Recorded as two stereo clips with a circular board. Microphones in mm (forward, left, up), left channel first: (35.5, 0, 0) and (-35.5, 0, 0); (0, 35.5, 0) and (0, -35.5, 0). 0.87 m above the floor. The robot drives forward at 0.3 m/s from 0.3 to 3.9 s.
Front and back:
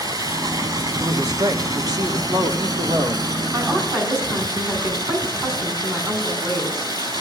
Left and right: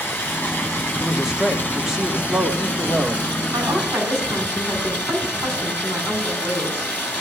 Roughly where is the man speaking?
Behind.